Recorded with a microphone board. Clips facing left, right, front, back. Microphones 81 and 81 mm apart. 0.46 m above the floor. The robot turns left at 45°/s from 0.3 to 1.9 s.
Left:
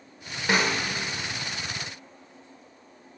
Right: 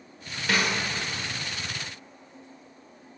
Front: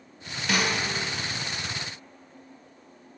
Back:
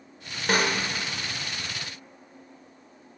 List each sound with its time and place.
0.5 s a snare drum: 150° left, 1.3 m; by 0.8 s 135° left, 1.3 m